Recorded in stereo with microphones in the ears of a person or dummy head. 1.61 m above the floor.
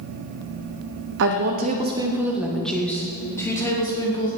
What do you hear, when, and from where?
1.2 s a woman speaking: 65° right (ahead or behind), 0.9 m; by 4.3 s 20° left (ahead or behind), 3 m